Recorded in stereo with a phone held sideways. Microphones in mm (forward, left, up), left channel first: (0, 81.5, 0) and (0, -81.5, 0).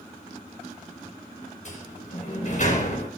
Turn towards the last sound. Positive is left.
turn(degrees=50)  # may be behind; listen again after turning